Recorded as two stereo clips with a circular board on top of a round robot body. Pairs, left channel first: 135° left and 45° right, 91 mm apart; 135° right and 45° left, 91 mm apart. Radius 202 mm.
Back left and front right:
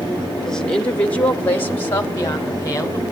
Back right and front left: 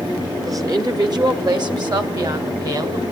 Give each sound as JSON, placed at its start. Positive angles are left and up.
{"t": 0.5, "sound": "a woman speaking", "azimuth_deg": 55, "distance_m": 1.5}